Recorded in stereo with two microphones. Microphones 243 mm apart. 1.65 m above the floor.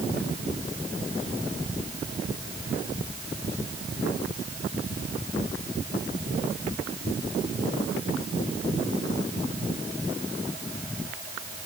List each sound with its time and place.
Only background noise.